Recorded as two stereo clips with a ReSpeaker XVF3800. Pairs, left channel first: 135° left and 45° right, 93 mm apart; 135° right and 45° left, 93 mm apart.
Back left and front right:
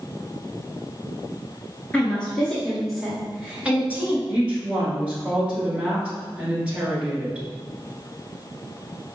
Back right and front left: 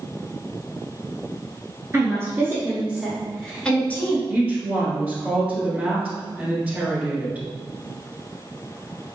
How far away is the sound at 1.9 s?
About 1.3 m.